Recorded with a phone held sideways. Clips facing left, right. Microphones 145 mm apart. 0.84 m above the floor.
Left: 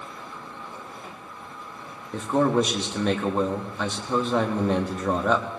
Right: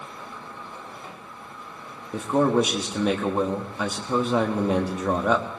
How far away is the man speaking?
About 1.2 m.